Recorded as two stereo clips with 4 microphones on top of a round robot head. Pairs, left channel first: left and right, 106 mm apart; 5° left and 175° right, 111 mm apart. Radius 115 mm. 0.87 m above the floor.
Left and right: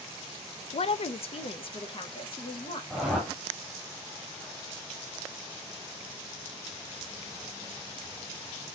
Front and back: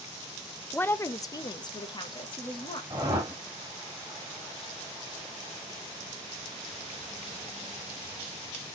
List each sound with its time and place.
0.7 s a woman speaking: 80° left, 0.5 m; by 2.8 s 50° left, 1.5 m
2.9 s a whoosh: 175° right, 0.6 m